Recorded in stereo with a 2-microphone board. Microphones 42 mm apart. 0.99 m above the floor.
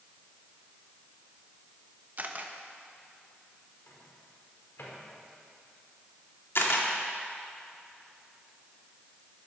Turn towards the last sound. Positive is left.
turn(degrees=65)  # may be behind; listen again after turning